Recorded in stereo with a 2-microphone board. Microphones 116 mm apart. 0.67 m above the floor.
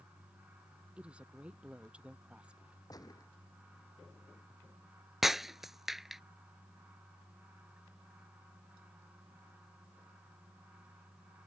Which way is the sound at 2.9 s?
35° left (ahead or behind).